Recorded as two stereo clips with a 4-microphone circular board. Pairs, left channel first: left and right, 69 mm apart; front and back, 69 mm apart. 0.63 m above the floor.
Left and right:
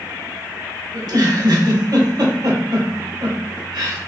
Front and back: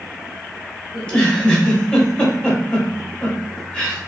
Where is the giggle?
75° right, 1.3 m.